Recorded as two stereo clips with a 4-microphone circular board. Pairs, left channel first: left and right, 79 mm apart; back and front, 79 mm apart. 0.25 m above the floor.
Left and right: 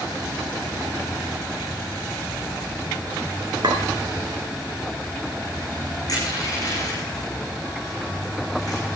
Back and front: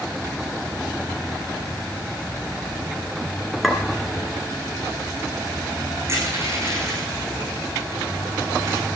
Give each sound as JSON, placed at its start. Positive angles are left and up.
{"t": 3.6, "sound": "a clink", "azimuth_deg": -90, "distance_m": 2.0}
{"t": 6.1, "sound": "crushing", "azimuth_deg": 55, "distance_m": 10.0}